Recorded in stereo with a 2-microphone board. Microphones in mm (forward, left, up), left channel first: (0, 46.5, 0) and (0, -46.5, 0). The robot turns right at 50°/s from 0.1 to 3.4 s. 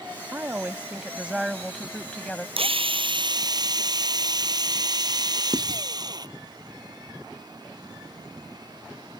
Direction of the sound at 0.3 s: 20° right (ahead or behind).